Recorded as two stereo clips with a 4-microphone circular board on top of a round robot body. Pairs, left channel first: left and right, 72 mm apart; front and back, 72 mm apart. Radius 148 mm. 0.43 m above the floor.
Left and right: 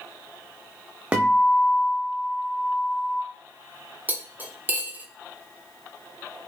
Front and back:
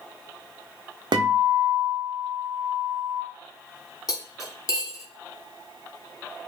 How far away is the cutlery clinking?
About 1.1 m.